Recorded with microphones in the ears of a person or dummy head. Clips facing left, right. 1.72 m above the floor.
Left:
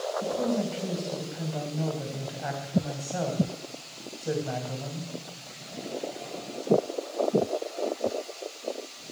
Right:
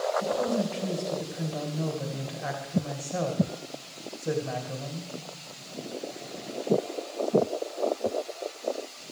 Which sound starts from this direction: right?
A woman speaking, at 0.2 s.